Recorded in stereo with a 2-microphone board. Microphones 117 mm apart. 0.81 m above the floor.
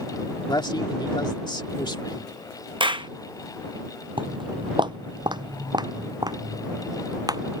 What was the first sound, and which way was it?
A man speaking, 40° left (ahead or behind).